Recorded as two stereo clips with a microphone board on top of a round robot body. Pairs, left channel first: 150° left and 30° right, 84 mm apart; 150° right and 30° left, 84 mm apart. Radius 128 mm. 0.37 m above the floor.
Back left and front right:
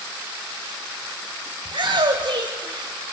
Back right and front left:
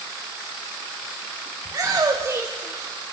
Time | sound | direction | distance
1.6 | a shout | 20° right | 3 m